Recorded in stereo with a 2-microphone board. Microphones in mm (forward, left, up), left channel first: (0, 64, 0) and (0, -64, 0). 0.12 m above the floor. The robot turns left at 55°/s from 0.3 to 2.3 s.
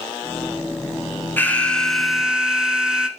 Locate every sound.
1.4 s an alarm: 15° left (ahead or behind), 1.1 m; by 3.1 s 5° right (ahead or behind), 1.1 m